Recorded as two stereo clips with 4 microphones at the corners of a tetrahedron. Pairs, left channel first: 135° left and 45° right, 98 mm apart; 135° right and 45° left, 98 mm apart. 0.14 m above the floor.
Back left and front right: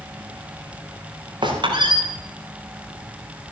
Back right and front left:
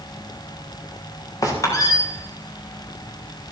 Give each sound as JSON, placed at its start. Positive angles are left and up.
{"t": 1.4, "sound": "a squeak", "azimuth_deg": -80, "distance_m": 4.5}